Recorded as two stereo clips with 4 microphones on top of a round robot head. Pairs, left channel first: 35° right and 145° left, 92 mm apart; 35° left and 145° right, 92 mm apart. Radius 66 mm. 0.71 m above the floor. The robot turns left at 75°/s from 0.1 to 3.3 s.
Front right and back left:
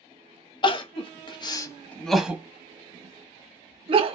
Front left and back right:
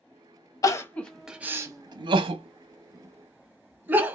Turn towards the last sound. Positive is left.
turn(degrees=145)